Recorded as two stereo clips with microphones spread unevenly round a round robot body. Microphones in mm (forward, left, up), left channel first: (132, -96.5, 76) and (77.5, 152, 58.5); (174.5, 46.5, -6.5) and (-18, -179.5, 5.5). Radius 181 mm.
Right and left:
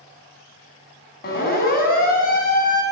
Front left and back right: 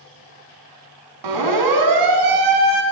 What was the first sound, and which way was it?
A siren, 140° right.